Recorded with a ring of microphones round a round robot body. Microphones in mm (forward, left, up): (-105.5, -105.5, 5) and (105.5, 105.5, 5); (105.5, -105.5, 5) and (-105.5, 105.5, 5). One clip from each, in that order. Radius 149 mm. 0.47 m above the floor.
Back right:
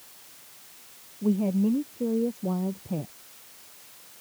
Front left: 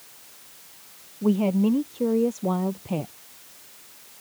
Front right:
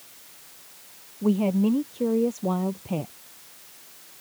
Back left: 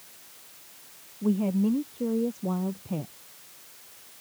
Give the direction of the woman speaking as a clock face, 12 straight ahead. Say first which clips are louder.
Front left 4 dB, front right 4 dB; 12 o'clock.